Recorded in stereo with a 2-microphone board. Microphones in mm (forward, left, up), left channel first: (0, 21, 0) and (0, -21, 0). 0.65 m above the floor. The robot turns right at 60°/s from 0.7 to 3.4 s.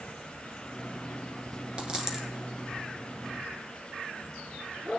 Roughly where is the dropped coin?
Right.